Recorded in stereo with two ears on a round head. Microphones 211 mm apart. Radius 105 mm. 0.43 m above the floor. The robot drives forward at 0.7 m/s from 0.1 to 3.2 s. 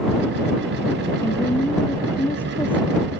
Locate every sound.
1.2 s a woman speaking: 10° left (ahead or behind)